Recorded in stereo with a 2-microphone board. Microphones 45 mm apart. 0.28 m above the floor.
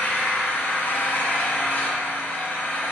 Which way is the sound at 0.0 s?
40° left (ahead or behind).